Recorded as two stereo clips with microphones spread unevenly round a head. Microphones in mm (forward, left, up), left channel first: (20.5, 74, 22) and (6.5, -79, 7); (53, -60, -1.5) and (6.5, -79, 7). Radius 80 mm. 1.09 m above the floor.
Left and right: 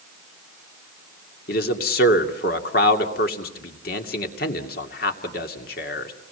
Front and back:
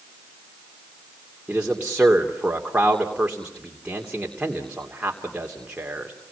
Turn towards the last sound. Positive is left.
turn(degrees=120)